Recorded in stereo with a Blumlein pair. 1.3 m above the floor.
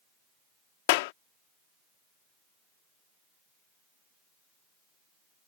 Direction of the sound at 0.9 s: 50° left.